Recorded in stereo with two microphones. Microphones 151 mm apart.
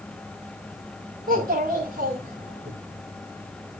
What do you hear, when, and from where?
1.3 s a child speaking: 65° right (ahead or behind), 2.0 m; by 2.7 s 50° right (ahead or behind), 3 m